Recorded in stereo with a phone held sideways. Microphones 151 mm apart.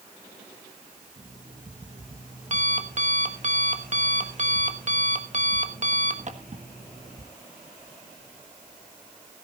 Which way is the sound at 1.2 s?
50° right (ahead or behind).